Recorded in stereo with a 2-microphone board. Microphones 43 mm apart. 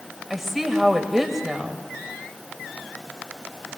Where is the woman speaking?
5° right (ahead or behind), 1.8 m.